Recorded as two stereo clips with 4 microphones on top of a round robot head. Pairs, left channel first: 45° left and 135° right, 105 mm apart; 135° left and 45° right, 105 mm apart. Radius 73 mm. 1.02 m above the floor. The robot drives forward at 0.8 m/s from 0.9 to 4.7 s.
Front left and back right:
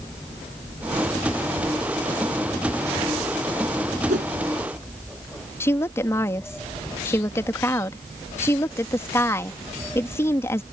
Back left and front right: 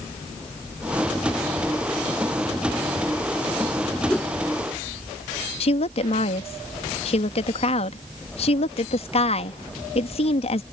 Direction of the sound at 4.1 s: 145° right.